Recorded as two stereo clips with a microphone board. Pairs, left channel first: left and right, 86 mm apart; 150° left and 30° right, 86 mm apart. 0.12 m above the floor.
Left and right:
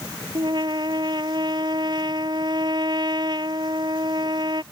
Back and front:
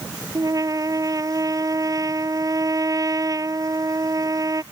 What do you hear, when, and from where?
0.3 s a trumpet: 70° right